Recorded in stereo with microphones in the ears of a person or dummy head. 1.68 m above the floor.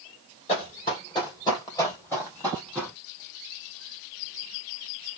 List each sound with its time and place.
0.5 s running footsteps: 35° left (ahead or behind), 2.5 m; by 3.0 s 5° left (ahead or behind), 2.5 m